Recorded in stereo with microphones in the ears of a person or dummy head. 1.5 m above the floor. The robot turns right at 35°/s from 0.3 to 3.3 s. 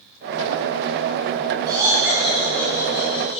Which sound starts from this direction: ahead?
Laughter, at 1.7 s.